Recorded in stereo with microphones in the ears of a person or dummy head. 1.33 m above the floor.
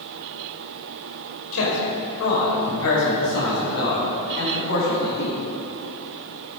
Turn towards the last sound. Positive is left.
turn(degrees=70)  # may be behind; listen again after turning